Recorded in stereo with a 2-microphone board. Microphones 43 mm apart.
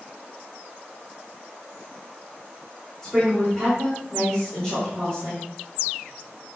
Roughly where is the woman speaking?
Centre.